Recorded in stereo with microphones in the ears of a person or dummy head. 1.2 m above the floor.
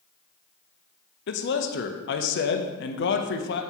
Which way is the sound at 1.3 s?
65° left (ahead or behind).